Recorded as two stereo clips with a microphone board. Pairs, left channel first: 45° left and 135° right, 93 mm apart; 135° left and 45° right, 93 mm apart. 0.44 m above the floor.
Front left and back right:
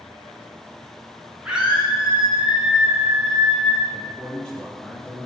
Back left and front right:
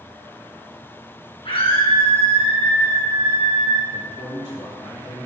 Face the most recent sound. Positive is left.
turn(degrees=120)